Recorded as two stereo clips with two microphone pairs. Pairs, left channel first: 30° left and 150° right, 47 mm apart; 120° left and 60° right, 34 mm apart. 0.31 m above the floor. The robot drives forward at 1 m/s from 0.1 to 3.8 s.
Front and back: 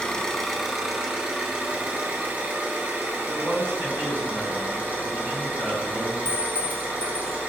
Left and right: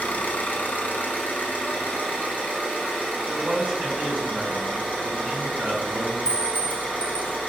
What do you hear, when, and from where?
0.0 s an engine running: 100° left, 1.4 m; by 7.5 s 160° left, 4 m
3.3 s a man speaking: 120° right, 3 m; by 6.2 s 125° right, 3 m
6.2 s a clink: 110° right, 0.9 m